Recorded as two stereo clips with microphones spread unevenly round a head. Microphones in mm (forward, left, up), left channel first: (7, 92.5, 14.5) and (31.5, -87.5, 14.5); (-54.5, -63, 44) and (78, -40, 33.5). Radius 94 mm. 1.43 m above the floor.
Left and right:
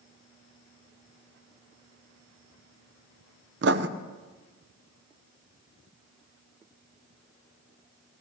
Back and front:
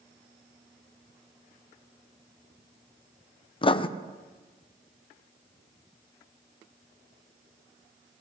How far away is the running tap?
No running tap in this recording.